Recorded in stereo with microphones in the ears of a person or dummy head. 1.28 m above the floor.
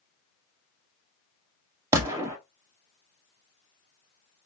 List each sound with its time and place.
1.9 s a gunshot: 20° right (ahead or behind), 0.7 m